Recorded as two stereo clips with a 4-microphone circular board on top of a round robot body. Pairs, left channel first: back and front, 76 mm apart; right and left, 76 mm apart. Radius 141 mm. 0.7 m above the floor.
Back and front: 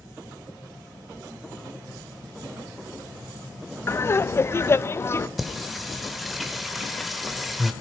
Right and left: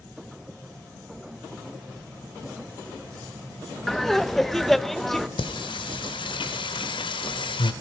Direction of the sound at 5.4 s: 90° right.